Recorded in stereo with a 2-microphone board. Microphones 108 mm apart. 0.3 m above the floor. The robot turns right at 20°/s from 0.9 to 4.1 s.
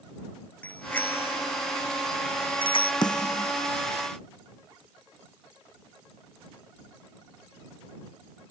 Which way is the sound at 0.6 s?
15° left (ahead or behind).